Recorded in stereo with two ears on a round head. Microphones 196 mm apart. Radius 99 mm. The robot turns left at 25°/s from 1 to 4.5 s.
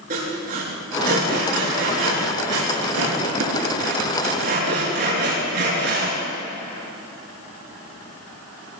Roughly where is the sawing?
Right.